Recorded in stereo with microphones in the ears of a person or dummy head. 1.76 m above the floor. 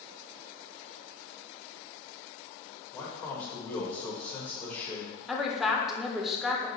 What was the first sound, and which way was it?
A man speaking, 15° left (ahead or behind).